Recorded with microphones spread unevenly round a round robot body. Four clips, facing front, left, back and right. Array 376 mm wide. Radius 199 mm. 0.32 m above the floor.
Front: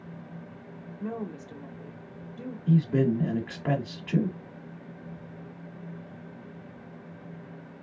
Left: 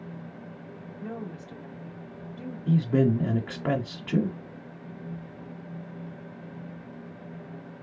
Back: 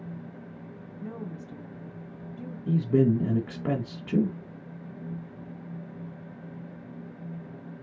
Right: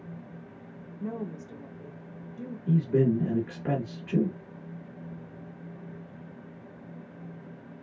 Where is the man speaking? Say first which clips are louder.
Left 1 dB, back 1 dB; 155° left, 1.0 m.